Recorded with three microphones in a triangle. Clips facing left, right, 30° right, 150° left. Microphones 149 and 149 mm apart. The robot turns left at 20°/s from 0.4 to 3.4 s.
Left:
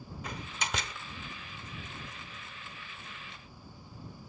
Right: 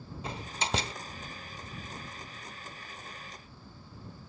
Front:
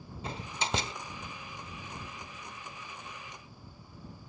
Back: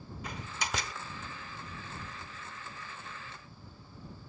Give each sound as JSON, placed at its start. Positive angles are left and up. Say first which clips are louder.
{"t": 0.2, "sound": "a door slam", "louder": "right 3 dB, front 3 dB", "azimuth_deg": -60}